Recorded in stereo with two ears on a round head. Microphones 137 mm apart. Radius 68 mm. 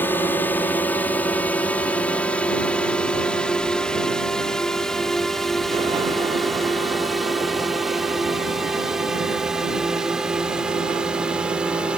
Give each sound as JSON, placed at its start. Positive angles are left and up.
{"t": 0.0, "sound": "a drone", "side_deg": 15}